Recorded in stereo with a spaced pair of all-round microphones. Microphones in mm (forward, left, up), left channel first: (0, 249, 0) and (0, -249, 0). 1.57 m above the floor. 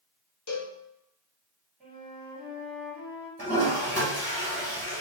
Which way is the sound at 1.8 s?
Centre (ahead or behind).